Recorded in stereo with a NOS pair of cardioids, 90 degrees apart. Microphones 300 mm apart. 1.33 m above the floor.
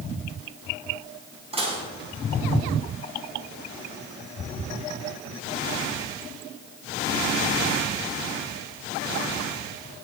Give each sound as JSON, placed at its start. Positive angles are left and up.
{"t": 1.5, "sound": "dishes clattering", "azimuth_deg": -20, "distance_m": 6.5}